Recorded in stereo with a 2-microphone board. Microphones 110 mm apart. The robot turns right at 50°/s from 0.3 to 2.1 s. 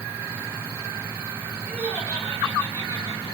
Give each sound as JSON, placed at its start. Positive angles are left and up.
{"t": 1.7, "sound": "laughter", "side_deg": 5, "distance_m": 6.5}